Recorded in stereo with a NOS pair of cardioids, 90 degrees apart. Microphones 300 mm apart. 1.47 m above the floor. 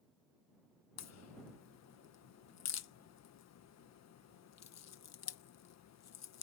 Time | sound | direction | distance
1.0 | a crack | 60° left | ?